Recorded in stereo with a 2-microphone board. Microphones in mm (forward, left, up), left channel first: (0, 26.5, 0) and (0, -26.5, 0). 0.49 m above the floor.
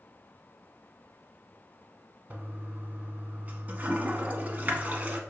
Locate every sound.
2.3 s a toilet flushing: 30° right (ahead or behind), 0.8 m